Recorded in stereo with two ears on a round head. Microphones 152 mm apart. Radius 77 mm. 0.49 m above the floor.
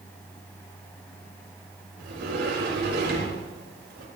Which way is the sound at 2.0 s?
65° right (ahead or behind).